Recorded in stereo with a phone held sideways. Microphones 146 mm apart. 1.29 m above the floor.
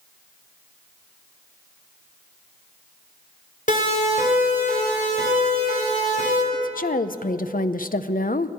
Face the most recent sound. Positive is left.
turn(degrees=70)  # may be behind; listen again after turning